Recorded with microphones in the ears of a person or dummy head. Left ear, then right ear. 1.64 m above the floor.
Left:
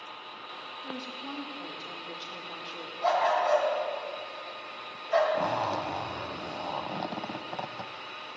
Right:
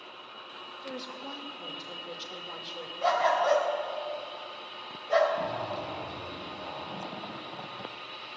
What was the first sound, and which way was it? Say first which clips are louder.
A woman speaking: right 1 dB; 50° right (ahead or behind).